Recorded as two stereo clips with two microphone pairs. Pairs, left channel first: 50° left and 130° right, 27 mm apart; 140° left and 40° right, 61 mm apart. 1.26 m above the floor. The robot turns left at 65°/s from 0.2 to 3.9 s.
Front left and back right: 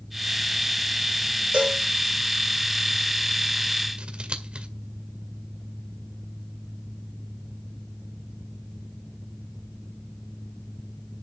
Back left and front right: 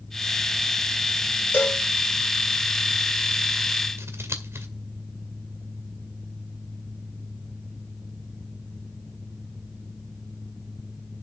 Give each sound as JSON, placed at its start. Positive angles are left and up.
{"t": 1.5, "sound": "a cowbell", "azimuth_deg": -165, "distance_m": 6.0}
{"t": 4.0, "sound": "scissors", "azimuth_deg": -80, "distance_m": 2.0}